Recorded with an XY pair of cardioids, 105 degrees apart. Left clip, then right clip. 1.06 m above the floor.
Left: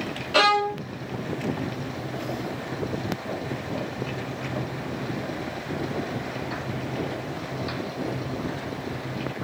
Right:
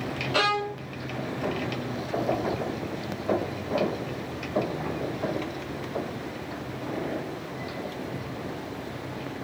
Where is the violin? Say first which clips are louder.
Left 6 dB; 30° left, 0.6 m.